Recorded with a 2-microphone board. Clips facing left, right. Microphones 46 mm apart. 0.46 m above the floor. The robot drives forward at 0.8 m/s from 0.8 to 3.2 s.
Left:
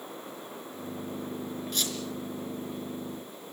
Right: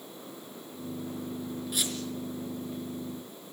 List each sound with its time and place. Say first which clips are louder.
1.7 s a squeak: even; 10° right (ahead or behind), 3.5 m